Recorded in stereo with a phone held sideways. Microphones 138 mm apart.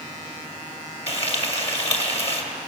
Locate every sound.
1.1 s frying: 45° left (ahead or behind), 2.5 m